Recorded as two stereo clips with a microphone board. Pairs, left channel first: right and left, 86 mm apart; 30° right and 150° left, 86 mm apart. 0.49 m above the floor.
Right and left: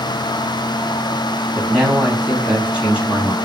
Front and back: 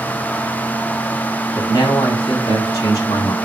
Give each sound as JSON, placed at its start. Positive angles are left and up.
{"t": 1.6, "sound": "a man speaking", "azimuth_deg": 15, "distance_m": 4.0}